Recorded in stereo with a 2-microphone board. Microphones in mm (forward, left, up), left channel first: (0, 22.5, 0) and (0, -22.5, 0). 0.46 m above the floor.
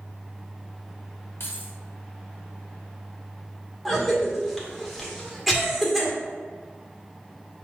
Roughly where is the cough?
Centre.